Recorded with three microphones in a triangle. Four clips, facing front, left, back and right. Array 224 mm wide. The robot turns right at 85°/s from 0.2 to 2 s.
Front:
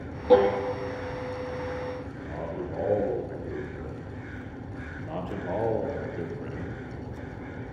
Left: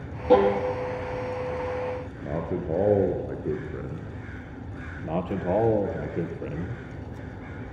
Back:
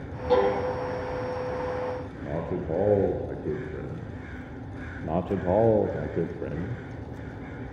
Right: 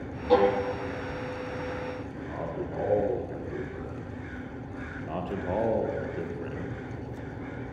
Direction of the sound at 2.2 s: 125° left.